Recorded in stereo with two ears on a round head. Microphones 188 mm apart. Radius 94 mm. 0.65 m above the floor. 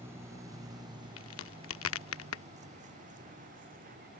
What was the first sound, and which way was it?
A vehicle, 10° right (ahead or behind).